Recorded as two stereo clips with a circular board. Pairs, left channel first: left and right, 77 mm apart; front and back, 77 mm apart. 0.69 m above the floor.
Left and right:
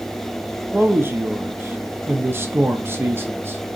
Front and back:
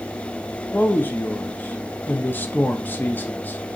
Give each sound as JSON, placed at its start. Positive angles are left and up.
{"t": 0.7, "sound": "a man speaking", "azimuth_deg": -50, "distance_m": 0.5}